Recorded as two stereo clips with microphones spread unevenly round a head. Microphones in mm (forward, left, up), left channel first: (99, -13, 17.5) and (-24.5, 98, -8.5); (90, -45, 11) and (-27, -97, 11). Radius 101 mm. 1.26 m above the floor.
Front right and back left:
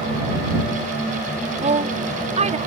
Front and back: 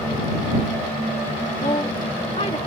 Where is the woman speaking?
90° left.